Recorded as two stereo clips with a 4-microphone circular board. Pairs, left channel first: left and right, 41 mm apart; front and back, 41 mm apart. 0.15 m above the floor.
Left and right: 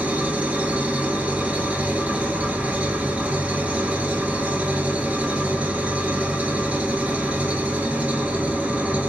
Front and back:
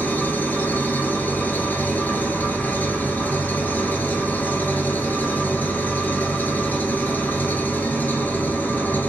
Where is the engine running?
35° right, 0.8 m.